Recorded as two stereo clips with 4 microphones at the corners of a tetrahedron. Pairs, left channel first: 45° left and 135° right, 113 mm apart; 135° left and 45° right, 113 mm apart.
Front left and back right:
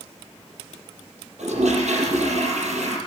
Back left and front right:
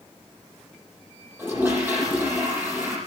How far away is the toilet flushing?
About 6.5 m.